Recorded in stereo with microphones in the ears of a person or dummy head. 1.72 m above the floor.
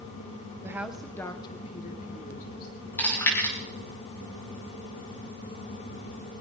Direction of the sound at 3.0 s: 15° left (ahead or behind).